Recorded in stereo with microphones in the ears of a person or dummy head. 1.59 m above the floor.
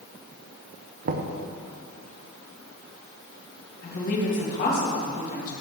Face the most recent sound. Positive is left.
turn(degrees=50)  # may be behind; listen again after turning